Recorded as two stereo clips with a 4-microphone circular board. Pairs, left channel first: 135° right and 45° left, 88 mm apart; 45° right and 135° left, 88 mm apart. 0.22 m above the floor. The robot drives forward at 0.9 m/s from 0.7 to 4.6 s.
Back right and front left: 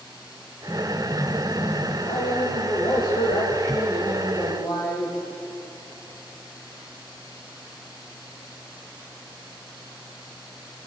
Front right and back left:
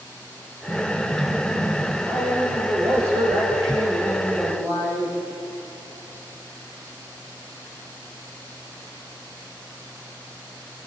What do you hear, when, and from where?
0.7 s an explosion: 155° left, 5.5 m; by 1.9 s 160° left, 7 m
2.0 s a man speaking: 170° right, 9.5 m